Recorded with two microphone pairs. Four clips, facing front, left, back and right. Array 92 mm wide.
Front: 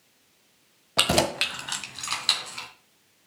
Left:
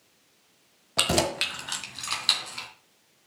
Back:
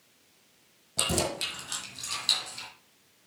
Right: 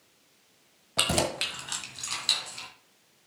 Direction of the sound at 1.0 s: 10° left.